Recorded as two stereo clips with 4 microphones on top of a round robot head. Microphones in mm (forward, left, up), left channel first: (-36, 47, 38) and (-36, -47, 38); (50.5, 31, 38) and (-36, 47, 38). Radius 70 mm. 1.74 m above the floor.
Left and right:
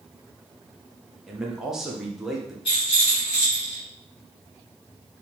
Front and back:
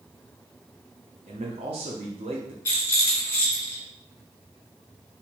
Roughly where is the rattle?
Ahead left.